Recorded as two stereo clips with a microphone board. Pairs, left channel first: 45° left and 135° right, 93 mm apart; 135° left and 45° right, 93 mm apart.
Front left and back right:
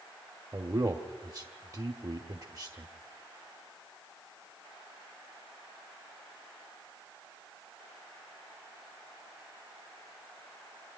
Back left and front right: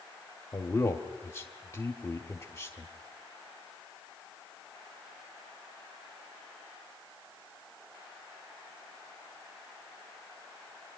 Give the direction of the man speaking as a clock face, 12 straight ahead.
6 o'clock.